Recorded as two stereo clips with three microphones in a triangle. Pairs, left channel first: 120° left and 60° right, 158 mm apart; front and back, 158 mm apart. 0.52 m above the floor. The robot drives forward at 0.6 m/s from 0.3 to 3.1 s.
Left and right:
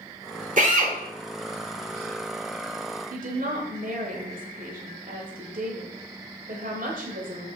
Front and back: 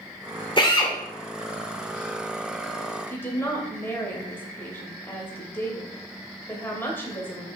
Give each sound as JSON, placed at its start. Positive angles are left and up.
{"t": 0.6, "sound": "a drill", "azimuth_deg": -50, "distance_m": 2.0}
{"t": 3.1, "sound": "a woman speaking", "azimuth_deg": -75, "distance_m": 2.5}